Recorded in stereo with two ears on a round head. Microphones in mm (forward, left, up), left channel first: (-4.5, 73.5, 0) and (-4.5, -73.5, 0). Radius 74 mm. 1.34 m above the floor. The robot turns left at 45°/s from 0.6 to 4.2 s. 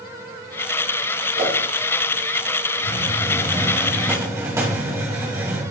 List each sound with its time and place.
1.4 s a whoosh: 65° right (ahead or behind), 5.5 m; by 1.5 s 55° right (ahead or behind), 5.5 m
2.8 s a hiss: 45° left, 3 m; by 5.6 s 20° right, 3 m